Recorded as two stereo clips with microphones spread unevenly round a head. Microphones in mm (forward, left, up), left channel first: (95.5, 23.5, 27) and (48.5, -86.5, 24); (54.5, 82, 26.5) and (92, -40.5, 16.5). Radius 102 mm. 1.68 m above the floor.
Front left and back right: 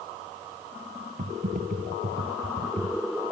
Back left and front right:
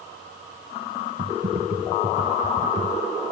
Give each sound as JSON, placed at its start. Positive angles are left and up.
{"t": 1.2, "sound": "typing on a keyboard", "azimuth_deg": -105}